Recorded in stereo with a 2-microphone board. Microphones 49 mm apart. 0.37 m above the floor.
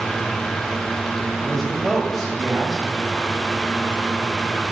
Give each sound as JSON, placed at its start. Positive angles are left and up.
{"t": 1.4, "sound": "a man speaking", "side_deg": 0, "distance_m": 1.7}